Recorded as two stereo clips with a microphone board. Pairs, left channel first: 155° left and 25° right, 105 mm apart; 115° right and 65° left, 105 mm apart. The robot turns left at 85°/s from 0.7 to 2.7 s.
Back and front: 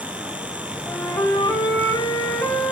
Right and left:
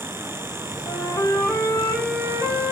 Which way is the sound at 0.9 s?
125° right.